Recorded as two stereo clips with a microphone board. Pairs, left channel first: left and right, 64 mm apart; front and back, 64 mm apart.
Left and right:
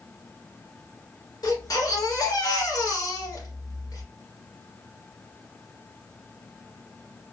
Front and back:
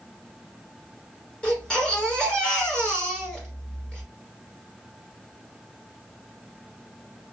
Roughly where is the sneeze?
No sneeze in this recording.